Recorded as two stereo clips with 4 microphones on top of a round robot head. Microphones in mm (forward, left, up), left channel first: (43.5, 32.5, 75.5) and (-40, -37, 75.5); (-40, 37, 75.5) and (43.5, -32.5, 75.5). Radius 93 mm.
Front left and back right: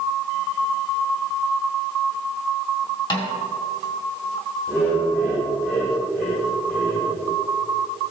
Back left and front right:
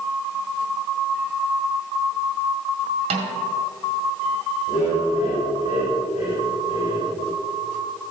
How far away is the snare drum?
About 1.9 m.